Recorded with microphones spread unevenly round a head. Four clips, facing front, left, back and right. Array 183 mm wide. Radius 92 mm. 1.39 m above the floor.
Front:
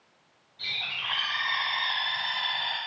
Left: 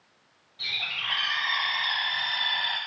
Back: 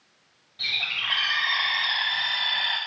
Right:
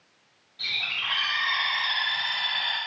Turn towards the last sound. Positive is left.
turn(degrees=-175)